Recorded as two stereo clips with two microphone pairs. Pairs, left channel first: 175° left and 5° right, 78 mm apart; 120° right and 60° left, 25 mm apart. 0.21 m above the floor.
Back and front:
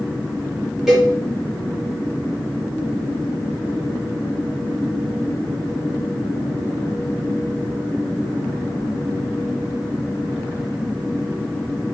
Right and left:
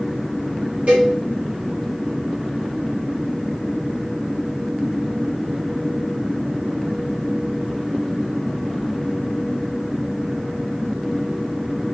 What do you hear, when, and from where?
0.9 s a cowbell: 80° left, 5 m